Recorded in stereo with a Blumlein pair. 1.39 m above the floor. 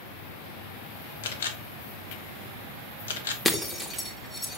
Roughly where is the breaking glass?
Ahead.